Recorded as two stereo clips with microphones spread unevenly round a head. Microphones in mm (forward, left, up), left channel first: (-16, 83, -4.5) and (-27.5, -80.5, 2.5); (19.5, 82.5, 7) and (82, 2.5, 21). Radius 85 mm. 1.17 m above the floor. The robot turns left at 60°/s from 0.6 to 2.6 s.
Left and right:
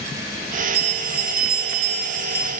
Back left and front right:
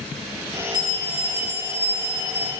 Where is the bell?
15° right, 1.0 m; by 2.5 s 120° right, 1.0 m.